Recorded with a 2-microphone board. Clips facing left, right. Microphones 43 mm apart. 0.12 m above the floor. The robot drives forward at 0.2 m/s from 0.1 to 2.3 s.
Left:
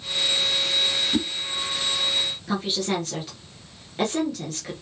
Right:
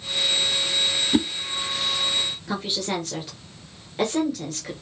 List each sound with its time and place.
1.1 s a whoosh: 30° right (ahead or behind), 0.8 m
2.5 s a woman speaking: 5° right (ahead or behind), 1.6 m